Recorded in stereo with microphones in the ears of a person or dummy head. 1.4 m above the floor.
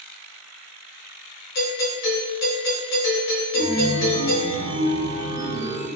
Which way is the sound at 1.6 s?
65° left (ahead or behind).